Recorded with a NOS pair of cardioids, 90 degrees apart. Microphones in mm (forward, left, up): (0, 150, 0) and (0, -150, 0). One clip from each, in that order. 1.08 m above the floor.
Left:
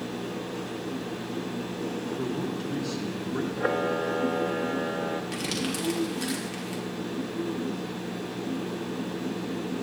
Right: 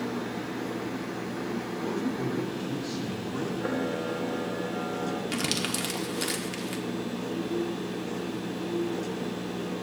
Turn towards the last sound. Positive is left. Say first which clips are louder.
# right 1 dB
turn(degrees=-35)